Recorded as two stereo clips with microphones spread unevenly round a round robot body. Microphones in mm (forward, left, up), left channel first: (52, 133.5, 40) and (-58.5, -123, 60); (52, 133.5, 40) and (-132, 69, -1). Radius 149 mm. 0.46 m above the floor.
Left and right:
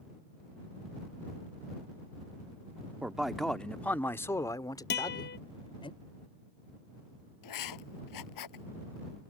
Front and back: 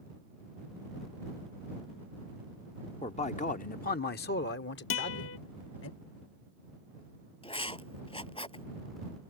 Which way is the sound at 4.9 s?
10° left.